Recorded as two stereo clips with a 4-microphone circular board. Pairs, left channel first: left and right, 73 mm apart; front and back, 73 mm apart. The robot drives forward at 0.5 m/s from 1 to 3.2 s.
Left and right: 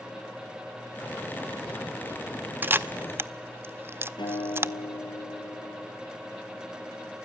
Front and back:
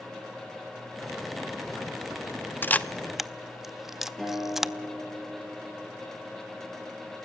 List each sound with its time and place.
2.6 s a camera shutter: 45° right, 0.5 m; by 4.7 s 95° right, 0.5 m
4.2 s a guitar: 90° left, 7.5 m